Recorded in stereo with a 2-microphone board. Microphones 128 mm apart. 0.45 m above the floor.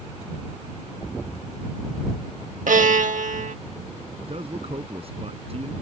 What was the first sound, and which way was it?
A violin, 90° right.